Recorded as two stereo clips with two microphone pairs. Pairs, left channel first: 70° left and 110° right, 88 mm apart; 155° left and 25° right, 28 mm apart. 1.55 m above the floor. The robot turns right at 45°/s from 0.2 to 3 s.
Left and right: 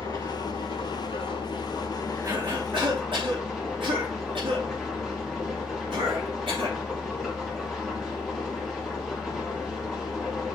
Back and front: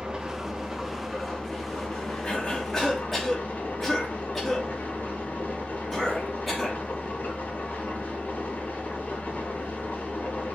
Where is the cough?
155° right, 3 m; by 6.8 s 120° right, 3 m.